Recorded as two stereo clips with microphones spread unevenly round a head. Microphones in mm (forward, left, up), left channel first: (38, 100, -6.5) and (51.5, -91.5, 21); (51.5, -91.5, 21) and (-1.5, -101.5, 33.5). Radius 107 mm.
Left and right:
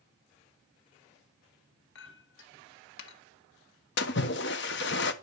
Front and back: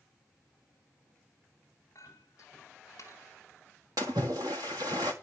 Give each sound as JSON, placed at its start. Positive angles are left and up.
{"t": 1.9, "sound": "a clink", "azimuth_deg": 85, "distance_m": 1.4}
{"t": 4.0, "sound": "a splash", "azimuth_deg": 140, "distance_m": 1.2}